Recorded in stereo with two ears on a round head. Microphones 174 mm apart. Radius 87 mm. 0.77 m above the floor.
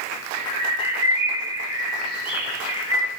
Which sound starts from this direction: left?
A bird, at 0.3 s.